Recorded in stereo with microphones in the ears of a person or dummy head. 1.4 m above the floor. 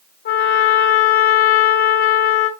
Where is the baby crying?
I don't hear a baby crying.